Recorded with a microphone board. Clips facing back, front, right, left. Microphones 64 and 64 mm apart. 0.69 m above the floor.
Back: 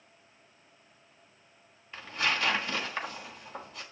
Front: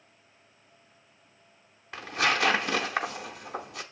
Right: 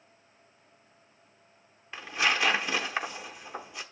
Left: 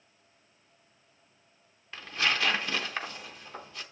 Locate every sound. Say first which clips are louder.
1.9 s tearing paper: front 4 dB, right 2 dB; 15° right, 0.7 m